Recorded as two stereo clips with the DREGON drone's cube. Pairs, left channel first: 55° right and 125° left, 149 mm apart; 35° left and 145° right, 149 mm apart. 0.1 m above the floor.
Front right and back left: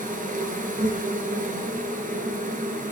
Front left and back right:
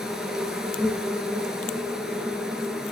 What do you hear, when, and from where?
0.0 s an insect: 130° left, 2.0 m